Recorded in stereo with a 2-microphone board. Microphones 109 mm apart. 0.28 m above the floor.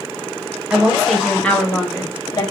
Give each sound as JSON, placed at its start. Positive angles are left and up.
{"t": 0.7, "sound": "a woman speaking", "side_deg": -10, "distance_m": 1.0}